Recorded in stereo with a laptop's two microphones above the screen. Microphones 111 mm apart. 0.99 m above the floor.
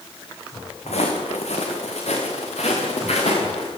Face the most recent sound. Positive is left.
turn(degrees=70)  # may be behind; listen again after turning